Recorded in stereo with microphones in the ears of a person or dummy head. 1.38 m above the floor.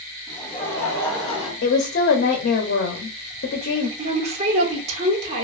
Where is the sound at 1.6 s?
55° left (ahead or behind), 0.6 m.